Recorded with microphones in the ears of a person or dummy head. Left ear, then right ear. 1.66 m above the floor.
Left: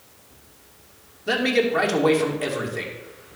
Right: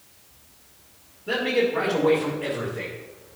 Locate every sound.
1.3 s a man speaking: 75° left (ahead or behind), 1.9 m